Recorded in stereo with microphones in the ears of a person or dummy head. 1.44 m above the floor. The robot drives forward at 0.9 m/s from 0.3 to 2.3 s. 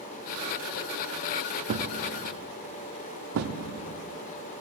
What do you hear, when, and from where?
1.7 s a thud: 65° right (ahead or behind), 1.7 m